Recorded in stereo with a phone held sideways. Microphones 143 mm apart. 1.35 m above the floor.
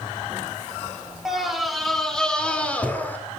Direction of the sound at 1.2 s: 5° right (ahead or behind).